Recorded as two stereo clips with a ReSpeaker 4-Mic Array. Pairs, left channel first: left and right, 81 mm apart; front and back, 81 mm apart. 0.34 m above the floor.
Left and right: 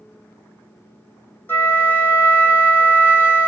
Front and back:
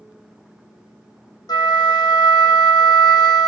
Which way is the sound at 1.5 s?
30° left.